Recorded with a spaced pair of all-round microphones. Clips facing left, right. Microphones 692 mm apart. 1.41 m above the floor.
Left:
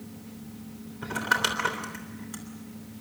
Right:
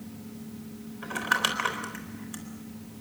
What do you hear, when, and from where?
1.0 s crumpling: 65° left (ahead or behind), 3.5 m